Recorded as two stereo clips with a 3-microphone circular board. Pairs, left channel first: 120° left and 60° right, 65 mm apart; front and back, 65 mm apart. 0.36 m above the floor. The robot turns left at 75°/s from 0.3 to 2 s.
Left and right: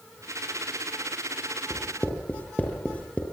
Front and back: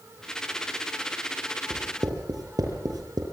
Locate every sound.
1.7 s writing: 150° right, 6.5 m; by 3.2 s 170° right, 6.5 m